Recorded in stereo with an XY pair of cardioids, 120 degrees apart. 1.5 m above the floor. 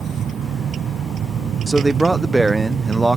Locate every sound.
0.0 s a vehicle: 50° right
1.7 s a man speaking: 10° right